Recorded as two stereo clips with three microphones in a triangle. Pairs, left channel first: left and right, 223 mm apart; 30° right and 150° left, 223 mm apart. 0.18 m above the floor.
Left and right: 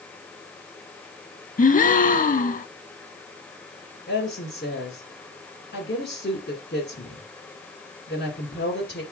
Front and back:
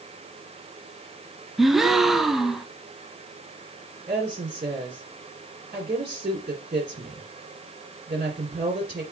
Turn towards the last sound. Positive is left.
turn(degrees=115)